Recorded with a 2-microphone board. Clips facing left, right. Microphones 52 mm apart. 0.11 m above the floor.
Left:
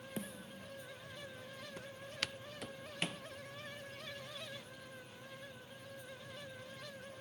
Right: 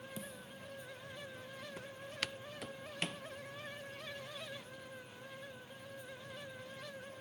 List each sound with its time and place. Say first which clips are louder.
0.2 s a snare drum: left 2 dB; 50° left (ahead or behind)
1.8 s footsteps: even; 5° right (ahead or behind); by 3.2 s 5° left (ahead or behind)